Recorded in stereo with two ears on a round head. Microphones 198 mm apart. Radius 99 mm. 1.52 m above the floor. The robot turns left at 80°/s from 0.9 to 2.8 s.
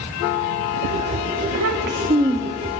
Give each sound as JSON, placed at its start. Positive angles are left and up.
{"t": 1.5, "sound": "a child speaking", "azimuth_deg": -100, "distance_m": 2.0}